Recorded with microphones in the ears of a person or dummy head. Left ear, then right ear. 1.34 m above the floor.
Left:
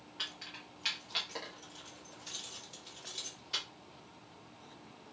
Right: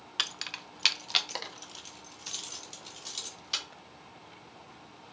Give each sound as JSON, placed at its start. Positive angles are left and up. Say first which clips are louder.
{"t": 0.2, "sound": "keys jangling", "louder": "right 9 dB", "side_deg": -70, "distance_m": 0.6}